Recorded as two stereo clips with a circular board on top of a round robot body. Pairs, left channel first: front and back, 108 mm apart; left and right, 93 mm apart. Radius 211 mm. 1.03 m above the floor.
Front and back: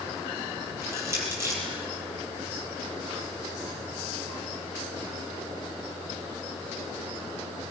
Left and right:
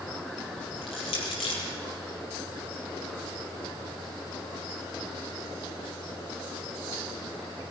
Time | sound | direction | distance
0.8 | crushing | 115° left | 5.5 m